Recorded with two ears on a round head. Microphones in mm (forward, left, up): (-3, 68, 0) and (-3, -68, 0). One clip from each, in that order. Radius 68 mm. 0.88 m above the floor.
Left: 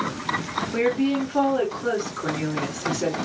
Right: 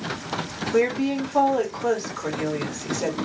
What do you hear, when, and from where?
0.7 s a woman speaking: 35° right (ahead or behind), 2 m